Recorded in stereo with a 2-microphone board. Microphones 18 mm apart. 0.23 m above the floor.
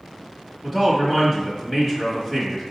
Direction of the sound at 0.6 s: 20° left (ahead or behind).